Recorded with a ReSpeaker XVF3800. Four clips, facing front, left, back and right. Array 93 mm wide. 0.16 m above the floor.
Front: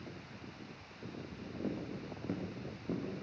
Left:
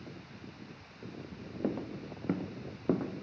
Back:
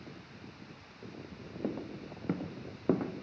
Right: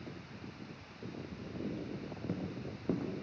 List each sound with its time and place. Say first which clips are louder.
1.6 s footsteps: left 7 dB, back 3 dB; 120° left, 1.7 m; by 3.1 s 155° left, 1.6 m